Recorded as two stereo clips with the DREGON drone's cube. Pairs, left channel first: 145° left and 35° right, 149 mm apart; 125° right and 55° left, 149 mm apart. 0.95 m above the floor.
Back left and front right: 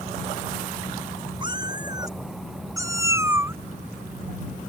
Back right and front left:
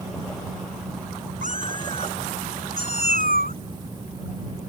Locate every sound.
1.4 s a cat meowing: 25° left; by 3.6 s 40° left